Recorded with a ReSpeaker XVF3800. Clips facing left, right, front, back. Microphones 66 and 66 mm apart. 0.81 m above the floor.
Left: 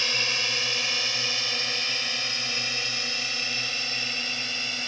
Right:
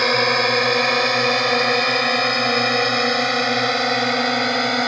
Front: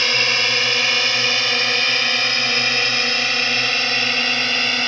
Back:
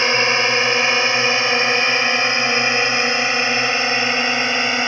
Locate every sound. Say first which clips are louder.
0.0 s a drone: right 13 dB, back 4 dB; 120° right; by 4.9 s 110° right